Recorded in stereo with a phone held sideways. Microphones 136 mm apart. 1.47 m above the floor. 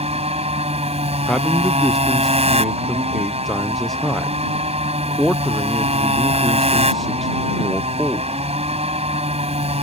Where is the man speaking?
Centre (ahead or behind).